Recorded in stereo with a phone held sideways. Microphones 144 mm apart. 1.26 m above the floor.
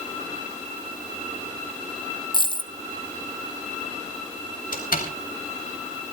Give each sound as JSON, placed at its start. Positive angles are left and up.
{"t": 2.3, "sound": "a dropped coin", "side_deg": 35, "distance_m": 0.7}
{"t": 4.7, "sound": "a door slam", "side_deg": 85, "distance_m": 4.5}